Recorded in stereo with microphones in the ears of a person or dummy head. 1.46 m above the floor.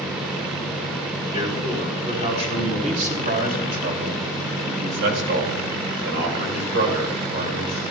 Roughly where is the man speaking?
Right.